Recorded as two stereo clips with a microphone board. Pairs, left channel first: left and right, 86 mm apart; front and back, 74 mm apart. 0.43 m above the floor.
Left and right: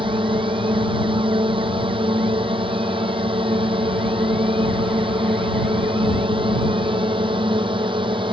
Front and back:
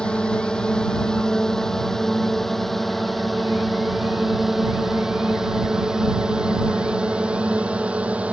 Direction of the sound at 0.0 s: 75° right.